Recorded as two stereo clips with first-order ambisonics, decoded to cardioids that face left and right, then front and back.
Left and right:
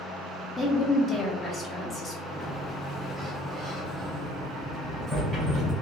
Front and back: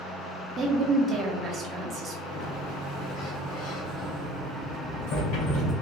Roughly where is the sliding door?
Ahead.